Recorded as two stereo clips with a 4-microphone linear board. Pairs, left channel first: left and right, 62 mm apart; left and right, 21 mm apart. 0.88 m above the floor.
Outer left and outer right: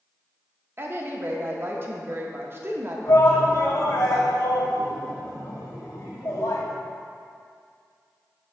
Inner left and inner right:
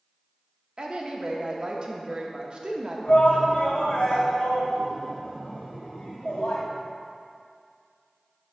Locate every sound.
0.8 s a woman speaking: 40° right (ahead or behind), 0.8 m
3.1 s a shout: 70° left (ahead or behind), 1.6 m